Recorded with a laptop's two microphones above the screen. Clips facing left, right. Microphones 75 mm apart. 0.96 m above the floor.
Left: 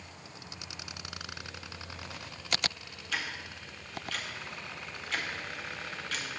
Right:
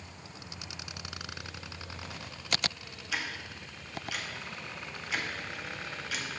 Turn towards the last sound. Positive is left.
turn(degrees=-10)  # may be behind; listen again after turning